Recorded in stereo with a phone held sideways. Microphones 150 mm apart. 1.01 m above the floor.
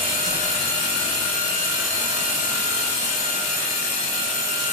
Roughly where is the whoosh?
Right.